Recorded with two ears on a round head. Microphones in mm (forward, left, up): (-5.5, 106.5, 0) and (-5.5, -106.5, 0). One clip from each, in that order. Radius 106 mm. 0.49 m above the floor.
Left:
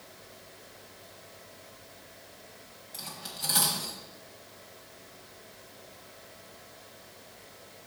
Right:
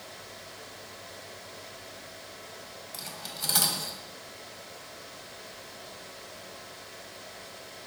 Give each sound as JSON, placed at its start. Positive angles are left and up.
{"t": 2.9, "sound": "cutlery clinking", "side_deg": -15, "distance_m": 1.4}